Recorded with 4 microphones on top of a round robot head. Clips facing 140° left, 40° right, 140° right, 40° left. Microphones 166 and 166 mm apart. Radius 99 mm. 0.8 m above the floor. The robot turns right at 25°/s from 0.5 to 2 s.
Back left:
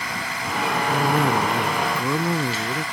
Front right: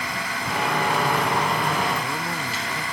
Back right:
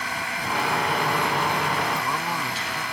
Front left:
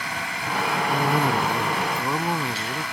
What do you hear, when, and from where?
0.9 s a cough: 85° left; by 2.8 s 110° left